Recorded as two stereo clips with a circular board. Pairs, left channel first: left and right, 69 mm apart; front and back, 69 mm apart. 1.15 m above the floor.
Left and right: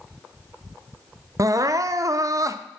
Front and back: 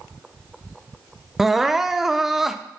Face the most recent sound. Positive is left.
turn(degrees=-95)